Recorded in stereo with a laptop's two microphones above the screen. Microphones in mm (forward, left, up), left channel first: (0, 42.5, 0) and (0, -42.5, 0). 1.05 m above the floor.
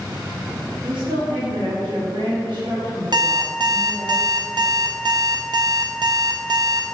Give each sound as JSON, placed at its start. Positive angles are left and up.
{"t": 0.8, "sound": "a woman speaking", "side_deg": -75, "distance_m": 1.8}
{"t": 3.1, "sound": "an alarm clock", "side_deg": -60, "distance_m": 0.6}